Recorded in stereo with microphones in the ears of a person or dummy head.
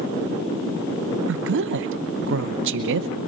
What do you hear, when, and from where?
1.3 s a woman speaking: 60° right (ahead or behind), 0.9 m